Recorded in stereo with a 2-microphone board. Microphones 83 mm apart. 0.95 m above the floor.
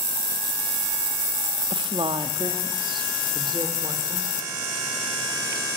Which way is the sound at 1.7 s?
70° right (ahead or behind).